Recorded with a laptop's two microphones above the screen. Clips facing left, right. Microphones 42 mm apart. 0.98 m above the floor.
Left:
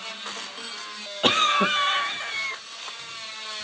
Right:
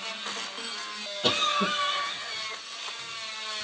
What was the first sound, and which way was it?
A cough, 50° left (ahead or behind).